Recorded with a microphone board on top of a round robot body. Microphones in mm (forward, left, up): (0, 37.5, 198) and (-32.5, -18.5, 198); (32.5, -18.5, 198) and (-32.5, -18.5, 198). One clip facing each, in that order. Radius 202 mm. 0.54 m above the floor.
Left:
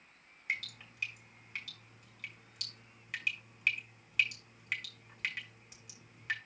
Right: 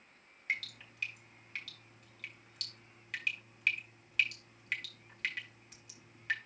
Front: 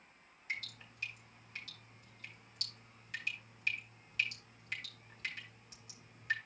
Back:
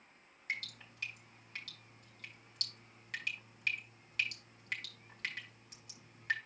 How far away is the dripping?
About 5.5 m.